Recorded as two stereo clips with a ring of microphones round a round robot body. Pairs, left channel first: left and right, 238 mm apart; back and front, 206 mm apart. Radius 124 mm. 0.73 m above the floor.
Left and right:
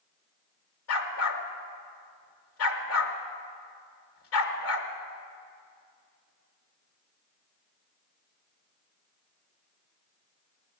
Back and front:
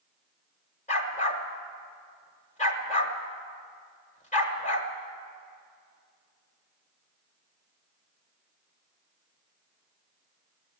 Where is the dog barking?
125° left, 1.4 m.